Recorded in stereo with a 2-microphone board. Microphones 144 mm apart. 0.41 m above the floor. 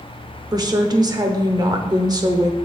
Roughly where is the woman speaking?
Right.